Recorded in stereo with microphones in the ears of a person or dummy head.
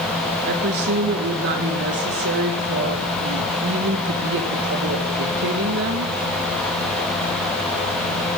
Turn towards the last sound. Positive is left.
turn(degrees=-70)  # may be behind; listen again after turning